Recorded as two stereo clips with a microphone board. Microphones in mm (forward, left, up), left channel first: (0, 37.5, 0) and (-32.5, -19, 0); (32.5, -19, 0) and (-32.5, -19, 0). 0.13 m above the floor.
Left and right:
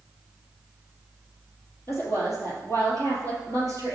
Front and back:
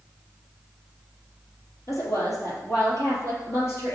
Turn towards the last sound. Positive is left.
turn(degrees=40)